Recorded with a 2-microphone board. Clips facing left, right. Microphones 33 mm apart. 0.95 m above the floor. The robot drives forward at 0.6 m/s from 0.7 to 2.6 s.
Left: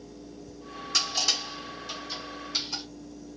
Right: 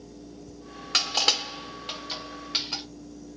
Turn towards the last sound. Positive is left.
turn(degrees=-45)  # may be behind; listen again after turning